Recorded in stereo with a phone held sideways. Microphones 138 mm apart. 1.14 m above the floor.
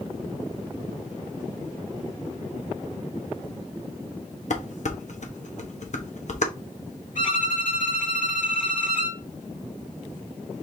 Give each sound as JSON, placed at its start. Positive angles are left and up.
{"t": 4.5, "sound": "dishes clattering", "side_deg": 60, "distance_m": 1.0}
{"t": 7.2, "sound": "a violin", "side_deg": 80, "distance_m": 4.5}